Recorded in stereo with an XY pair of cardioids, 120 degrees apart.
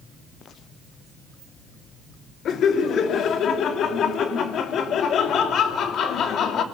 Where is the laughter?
55° left, 3 m.